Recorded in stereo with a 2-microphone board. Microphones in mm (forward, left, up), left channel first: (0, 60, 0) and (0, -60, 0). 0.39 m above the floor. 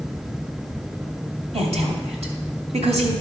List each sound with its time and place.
1.5 s a woman speaking: 60° right (ahead or behind), 2.5 m